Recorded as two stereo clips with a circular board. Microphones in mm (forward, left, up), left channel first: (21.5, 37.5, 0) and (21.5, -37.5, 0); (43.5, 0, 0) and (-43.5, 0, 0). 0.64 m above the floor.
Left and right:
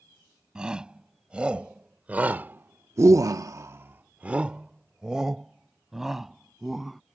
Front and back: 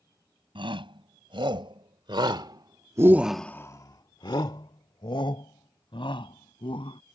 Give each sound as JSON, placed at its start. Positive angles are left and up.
{"t": 0.6, "sound": "a shout", "azimuth_deg": -170}